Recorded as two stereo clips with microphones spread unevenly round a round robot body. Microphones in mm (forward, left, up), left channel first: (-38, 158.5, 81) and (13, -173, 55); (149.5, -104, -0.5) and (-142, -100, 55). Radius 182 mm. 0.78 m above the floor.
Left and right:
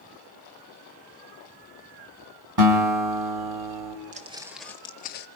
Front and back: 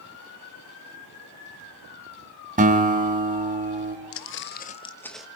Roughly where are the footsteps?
Ahead.